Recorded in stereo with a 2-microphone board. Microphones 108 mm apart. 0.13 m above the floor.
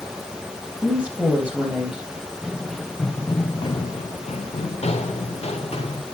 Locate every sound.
0.8 s a woman speaking: 10° right (ahead or behind), 3 m
2.2 s running footsteps: 5° right (ahead or behind), 1.4 m; by 6.0 s 65° left (ahead or behind), 1.9 m